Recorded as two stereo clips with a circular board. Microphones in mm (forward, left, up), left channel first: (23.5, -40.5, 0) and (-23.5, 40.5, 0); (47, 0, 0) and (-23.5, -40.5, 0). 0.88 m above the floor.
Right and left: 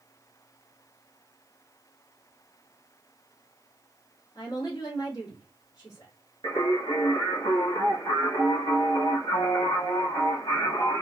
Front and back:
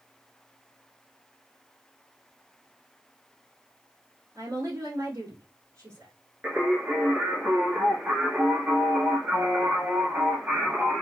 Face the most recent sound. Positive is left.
turn(degrees=-80)